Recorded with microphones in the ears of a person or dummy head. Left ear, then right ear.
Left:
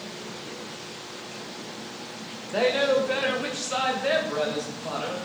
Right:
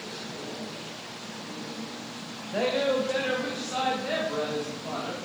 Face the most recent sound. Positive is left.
turn(degrees=65)  # may be behind; listen again after turning